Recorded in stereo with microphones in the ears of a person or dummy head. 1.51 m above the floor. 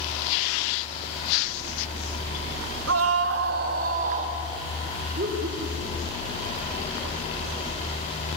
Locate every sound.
2.9 s a scream: 85° right, 1.4 m; by 4.4 s 40° right (ahead or behind), 2 m
5.1 s laughter: 55° right (ahead or behind), 3.5 m